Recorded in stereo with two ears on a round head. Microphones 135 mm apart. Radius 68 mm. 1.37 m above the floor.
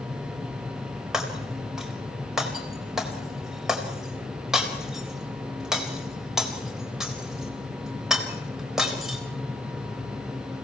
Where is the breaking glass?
5° right (ahead or behind), 4 m.